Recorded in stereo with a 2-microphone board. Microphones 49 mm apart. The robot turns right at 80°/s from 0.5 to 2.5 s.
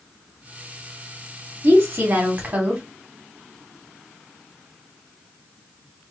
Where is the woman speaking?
110° right, 1.0 m; by 2.8 s 40° right, 1.0 m.